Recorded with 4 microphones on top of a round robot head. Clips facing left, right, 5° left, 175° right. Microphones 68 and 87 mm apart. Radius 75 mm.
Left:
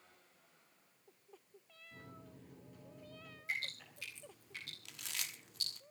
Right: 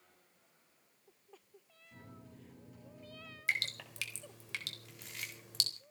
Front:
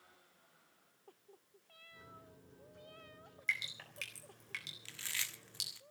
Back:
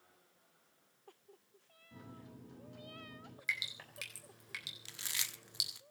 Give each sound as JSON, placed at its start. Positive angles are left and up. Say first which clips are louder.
{"t": 1.9, "sound": "a microwave", "louder": "right 1 dB, back 5 dB", "azimuth_deg": -175, "distance_m": 9.5}
{"t": 3.5, "sound": "dripping", "louder": "right 6 dB, front 1 dB", "azimuth_deg": -95, "distance_m": 3.5}
{"t": 4.8, "sound": "chewing", "louder": "even, front 1 dB", "azimuth_deg": 120, "distance_m": 0.8}